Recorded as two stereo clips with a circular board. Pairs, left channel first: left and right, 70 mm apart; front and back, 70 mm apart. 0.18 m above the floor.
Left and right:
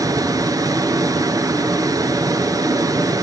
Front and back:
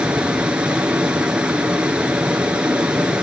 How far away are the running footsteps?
I don't hear running footsteps.